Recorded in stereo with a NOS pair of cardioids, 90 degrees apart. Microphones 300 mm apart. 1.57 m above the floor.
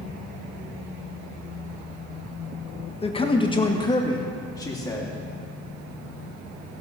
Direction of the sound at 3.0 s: 20° left.